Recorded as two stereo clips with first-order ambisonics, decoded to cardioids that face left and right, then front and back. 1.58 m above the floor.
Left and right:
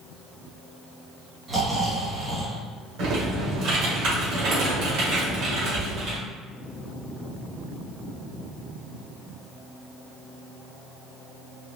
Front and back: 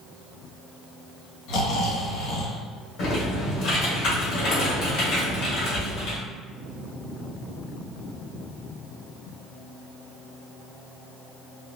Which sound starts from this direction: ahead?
Snoring, at 1.5 s.